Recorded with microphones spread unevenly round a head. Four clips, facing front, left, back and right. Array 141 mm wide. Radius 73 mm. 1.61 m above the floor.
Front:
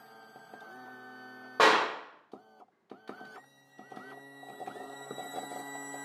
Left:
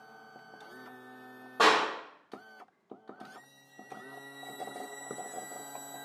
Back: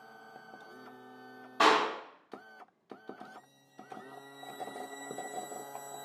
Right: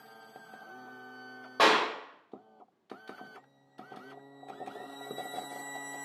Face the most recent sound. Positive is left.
turn(degrees=-10)